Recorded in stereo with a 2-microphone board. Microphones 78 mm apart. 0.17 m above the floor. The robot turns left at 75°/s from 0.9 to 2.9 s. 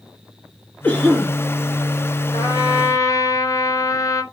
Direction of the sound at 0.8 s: 20° left.